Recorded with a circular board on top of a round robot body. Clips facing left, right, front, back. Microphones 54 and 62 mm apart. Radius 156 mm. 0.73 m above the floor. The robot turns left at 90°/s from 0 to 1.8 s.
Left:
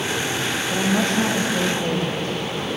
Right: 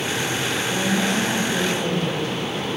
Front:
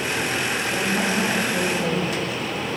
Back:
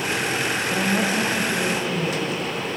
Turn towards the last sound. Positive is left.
turn(degrees=35)